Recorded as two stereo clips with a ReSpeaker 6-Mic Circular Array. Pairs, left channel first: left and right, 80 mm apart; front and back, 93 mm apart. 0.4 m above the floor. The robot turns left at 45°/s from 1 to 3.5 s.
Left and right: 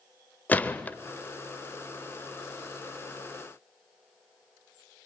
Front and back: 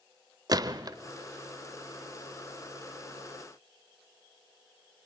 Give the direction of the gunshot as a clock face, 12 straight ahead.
7 o'clock.